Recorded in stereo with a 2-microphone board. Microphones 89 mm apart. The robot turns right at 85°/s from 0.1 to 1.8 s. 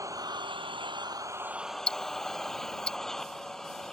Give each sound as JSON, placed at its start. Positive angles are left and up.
{"t": 0.0, "sound": "an engine running", "azimuth_deg": -140}
{"t": 1.9, "sound": "ticking", "side_deg": 10}